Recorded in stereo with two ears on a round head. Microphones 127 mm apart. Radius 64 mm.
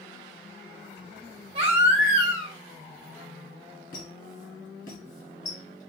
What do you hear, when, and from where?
1.6 s a baby crying: 45° right (ahead or behind), 1.2 m
3.9 s a squeak: 70° left (ahead or behind), 3 m